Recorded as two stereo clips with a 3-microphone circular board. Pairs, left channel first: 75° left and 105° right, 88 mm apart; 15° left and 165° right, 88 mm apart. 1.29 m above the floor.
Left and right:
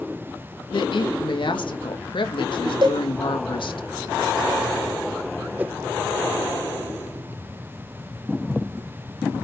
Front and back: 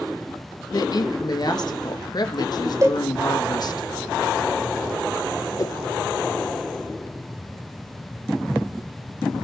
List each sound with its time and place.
0.7 s a woman speaking: 55° left, 2 m
2.8 s a cowbell: 115° right, 2 m
5.6 s a whoosh: 35° right, 0.8 m